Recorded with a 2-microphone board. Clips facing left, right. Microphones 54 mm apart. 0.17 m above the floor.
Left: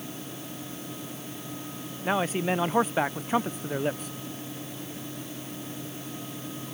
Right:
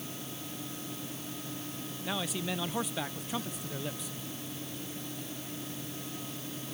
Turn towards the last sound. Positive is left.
turn(degrees=45)  # may be behind; listen again after turning